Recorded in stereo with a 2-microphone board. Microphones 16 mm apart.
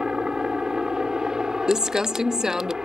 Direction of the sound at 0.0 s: 50° right (ahead or behind).